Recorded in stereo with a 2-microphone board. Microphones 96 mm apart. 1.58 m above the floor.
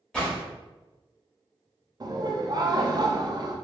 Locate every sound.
0.1 s a gunshot: 10° left (ahead or behind), 1.5 m
2.0 s laughter: 45° right (ahead or behind), 0.5 m